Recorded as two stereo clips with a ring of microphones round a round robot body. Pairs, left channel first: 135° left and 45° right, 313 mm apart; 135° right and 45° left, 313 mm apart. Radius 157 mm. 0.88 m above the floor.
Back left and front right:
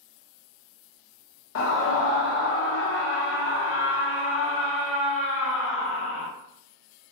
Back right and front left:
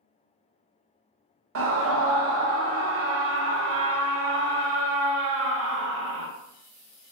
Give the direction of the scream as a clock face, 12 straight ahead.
9 o'clock.